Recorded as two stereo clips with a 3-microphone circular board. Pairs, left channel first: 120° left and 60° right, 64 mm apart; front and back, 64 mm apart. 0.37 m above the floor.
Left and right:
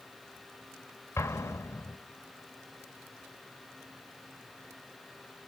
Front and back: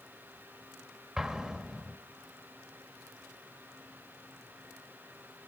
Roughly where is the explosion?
Left.